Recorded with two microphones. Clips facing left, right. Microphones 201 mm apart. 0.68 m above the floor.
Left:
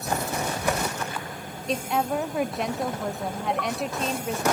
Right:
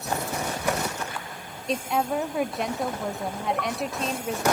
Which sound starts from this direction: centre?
A woman speaking, at 1.7 s.